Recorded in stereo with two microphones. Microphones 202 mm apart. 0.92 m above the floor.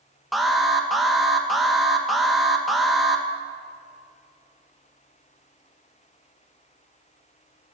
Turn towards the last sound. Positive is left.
turn(degrees=0)  # may be behind; listen again after turning